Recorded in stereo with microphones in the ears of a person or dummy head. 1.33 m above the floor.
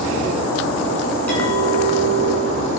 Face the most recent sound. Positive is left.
turn(degrees=10)  # may be behind; listen again after turning